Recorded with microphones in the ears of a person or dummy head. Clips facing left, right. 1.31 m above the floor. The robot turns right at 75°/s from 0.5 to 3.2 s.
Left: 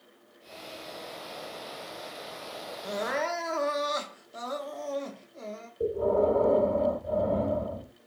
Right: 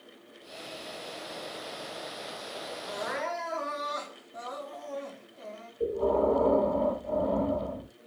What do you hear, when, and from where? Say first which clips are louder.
2.8 s crying: left 4 dB; 40° left (ahead or behind), 0.7 m; by 5.7 s 60° left (ahead or behind), 0.7 m
5.8 s breathing: left 1 dB; 20° left (ahead or behind), 2.5 m